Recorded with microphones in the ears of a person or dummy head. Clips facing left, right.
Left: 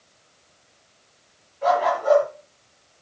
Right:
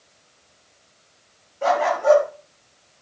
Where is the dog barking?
60° right (ahead or behind), 6.5 m.